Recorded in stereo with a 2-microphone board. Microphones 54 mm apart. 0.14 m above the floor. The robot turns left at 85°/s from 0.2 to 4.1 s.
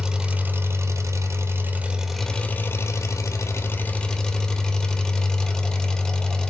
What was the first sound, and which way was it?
An engine running, 15° right.